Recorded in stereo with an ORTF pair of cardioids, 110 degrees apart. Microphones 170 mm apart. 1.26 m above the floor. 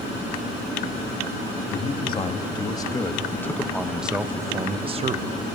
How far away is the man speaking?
About 2.5 m.